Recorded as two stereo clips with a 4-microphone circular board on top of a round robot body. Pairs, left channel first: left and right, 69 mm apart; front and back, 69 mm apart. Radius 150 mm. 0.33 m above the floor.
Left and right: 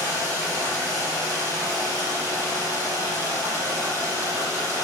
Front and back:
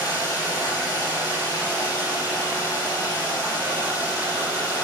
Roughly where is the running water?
Ahead right.